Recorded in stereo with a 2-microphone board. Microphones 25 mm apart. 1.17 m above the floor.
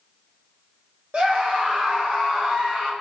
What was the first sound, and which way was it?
A scream, 60° right (ahead or behind).